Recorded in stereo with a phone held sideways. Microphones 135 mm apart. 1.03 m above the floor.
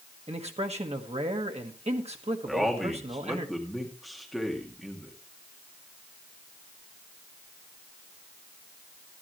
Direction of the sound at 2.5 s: Centre (ahead or behind).